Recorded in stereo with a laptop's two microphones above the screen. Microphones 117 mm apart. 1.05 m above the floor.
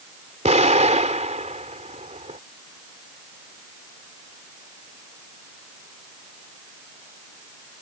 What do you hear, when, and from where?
0.5 s an explosion: 85° right